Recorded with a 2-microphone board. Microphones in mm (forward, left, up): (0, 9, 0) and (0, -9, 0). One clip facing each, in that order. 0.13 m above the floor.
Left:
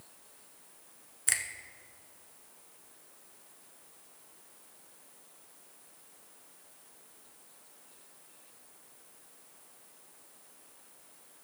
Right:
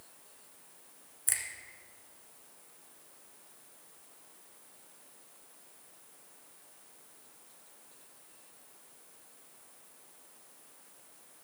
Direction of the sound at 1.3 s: 30° left (ahead or behind).